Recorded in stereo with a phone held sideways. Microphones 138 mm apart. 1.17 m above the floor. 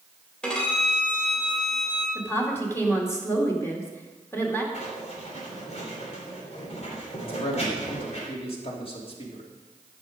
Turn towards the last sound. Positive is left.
turn(degrees=45)  # may be behind; listen again after turning